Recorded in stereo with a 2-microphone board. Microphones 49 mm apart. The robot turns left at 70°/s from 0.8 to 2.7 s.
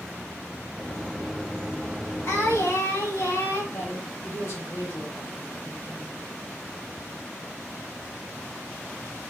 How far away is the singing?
About 4.5 m.